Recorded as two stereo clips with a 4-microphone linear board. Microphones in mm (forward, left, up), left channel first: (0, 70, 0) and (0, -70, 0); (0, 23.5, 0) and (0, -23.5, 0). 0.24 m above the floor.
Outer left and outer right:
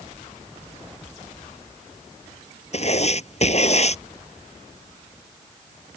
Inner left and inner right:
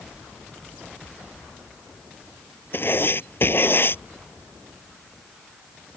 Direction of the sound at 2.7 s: 50° left (ahead or behind).